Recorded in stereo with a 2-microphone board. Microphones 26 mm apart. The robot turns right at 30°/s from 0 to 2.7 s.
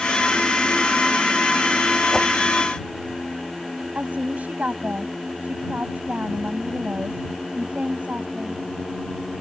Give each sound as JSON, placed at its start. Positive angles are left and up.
{"t": 2.1, "sound": "a whoosh", "side_deg": 20}
{"t": 4.0, "sound": "a woman speaking", "side_deg": -85}